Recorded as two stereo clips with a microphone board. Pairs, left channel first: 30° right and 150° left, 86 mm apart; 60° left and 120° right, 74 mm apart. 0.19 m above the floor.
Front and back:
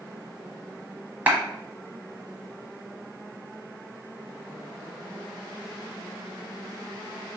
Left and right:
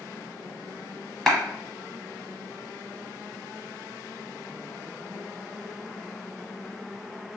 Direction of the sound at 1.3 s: 140° left.